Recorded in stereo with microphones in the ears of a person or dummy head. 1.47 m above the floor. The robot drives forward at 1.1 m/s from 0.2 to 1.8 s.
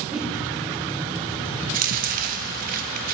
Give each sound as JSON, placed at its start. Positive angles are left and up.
{"t": 0.1, "sound": "a whoosh", "side_deg": -5, "distance_m": 1.1}
{"t": 1.6, "sound": "chewing", "side_deg": -45, "distance_m": 1.4}